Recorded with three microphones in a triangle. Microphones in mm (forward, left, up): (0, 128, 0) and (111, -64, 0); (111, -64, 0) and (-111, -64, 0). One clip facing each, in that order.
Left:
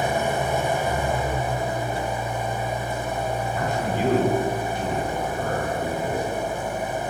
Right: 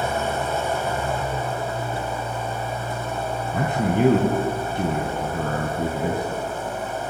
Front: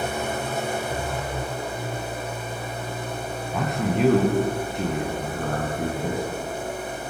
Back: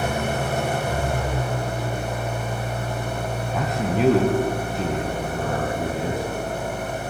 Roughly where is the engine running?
Behind.